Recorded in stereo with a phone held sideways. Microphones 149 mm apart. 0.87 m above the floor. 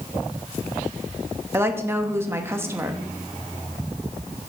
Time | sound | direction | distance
1.5 | a woman speaking | 15° right (ahead or behind) | 1.0 m